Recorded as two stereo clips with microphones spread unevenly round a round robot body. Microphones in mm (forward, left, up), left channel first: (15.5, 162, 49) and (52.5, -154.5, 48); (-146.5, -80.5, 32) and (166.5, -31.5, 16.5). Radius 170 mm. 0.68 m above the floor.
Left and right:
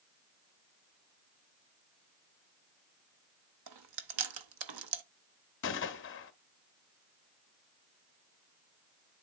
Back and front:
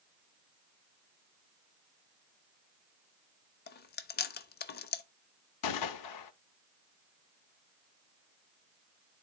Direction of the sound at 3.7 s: 110° right.